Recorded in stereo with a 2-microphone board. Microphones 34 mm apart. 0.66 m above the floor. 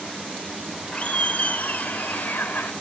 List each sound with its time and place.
0.9 s laughter: 40° left (ahead or behind), 2 m; by 2.7 s 70° left (ahead or behind), 2.5 m